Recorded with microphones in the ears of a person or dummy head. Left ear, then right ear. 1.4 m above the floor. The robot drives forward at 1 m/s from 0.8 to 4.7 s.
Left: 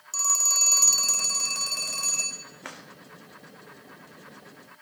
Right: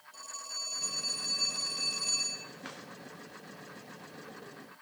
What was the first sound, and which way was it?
A phone ringing, 50° left (ahead or behind).